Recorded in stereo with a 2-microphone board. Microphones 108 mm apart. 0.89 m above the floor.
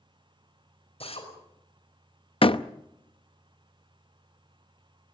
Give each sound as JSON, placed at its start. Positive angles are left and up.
{"t": 1.0, "sound": "a drill", "side_deg": 65, "distance_m": 5.5}
{"t": 2.4, "sound": "a door slam", "side_deg": 55, "distance_m": 0.7}